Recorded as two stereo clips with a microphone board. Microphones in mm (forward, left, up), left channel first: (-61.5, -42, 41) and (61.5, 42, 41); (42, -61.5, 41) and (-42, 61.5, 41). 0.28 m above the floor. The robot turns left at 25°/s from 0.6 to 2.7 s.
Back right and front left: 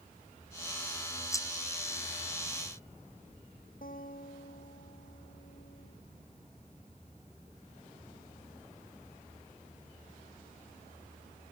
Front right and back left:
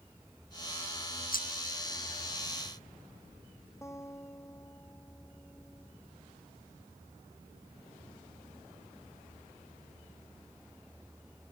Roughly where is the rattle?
Right.